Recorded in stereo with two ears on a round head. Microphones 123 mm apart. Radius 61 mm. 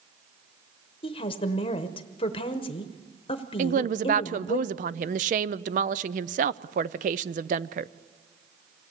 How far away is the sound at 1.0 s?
About 0.9 m.